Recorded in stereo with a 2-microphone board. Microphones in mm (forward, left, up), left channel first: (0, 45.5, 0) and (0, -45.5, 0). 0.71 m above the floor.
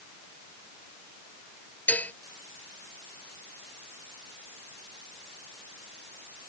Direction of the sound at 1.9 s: 15° left (ahead or behind).